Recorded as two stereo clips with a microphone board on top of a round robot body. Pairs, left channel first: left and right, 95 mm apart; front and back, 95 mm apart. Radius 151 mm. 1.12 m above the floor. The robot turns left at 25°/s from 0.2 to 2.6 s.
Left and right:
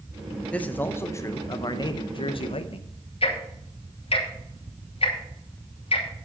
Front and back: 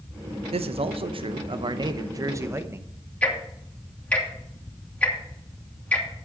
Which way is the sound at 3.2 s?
75° left.